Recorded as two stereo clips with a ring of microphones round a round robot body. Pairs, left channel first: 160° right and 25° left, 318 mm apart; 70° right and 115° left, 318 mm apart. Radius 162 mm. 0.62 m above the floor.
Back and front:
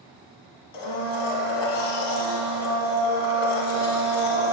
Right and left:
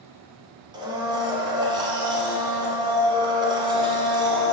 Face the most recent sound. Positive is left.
turn(degrees=-170)